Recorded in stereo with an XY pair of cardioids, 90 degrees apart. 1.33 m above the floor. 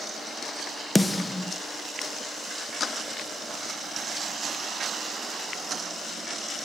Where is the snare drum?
20° left, 0.7 m.